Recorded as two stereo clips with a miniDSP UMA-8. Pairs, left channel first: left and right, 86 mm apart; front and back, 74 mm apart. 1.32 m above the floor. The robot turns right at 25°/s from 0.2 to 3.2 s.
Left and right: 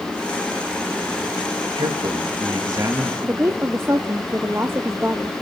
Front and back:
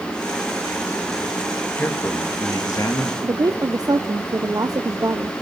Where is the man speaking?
65° right, 2.5 m; by 3.1 s 30° right, 2.5 m.